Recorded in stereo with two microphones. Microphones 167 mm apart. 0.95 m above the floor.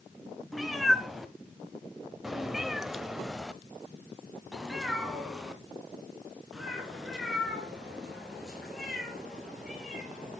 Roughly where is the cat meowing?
Centre.